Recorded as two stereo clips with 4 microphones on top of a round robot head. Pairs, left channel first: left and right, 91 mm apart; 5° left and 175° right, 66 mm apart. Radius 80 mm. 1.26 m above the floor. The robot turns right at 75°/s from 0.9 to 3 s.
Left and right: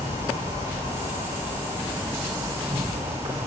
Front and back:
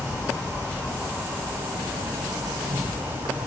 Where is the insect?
80° left, 0.7 m; by 3.5 s 125° right, 0.7 m.